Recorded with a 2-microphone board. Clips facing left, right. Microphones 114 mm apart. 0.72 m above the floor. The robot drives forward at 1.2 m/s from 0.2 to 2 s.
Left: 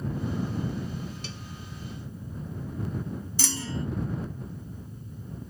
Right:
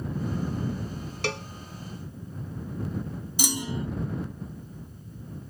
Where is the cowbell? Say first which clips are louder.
Right 10 dB; 80° right; by 1.5 s 75° right (ahead or behind).